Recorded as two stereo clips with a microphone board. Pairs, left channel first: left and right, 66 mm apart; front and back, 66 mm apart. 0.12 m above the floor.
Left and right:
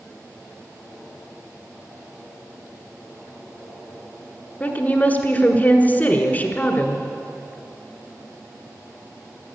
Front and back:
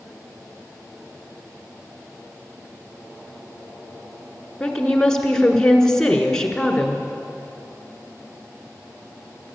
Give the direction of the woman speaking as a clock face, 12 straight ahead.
10 o'clock.